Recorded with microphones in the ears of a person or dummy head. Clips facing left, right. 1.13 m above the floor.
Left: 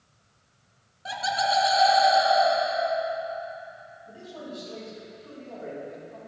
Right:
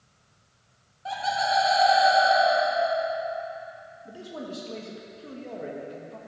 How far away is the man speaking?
About 1.4 m.